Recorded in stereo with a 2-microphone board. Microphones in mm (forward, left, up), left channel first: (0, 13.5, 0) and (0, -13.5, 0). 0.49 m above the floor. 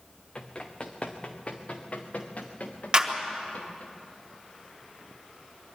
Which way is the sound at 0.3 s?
30° left (ahead or behind).